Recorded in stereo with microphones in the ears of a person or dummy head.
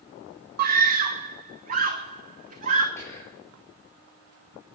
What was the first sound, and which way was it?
A scream, 50° right (ahead or behind).